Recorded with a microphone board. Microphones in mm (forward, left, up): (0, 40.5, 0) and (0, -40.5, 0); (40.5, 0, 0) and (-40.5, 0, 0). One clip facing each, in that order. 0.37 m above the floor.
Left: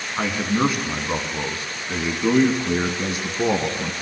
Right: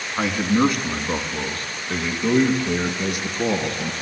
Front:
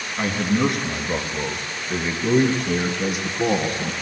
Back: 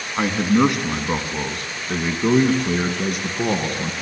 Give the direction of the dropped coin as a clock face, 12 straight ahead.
I don't hear a dropped coin.